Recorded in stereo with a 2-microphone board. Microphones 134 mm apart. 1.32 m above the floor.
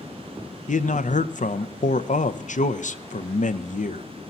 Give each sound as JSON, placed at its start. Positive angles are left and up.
{"t": 0.7, "sound": "a man speaking", "side_deg": 65, "distance_m": 0.6}